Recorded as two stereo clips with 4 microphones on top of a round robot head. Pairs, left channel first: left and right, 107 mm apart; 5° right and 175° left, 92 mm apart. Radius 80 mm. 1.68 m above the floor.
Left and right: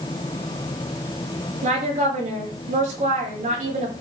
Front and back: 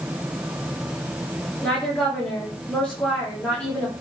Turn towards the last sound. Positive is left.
turn(degrees=-90)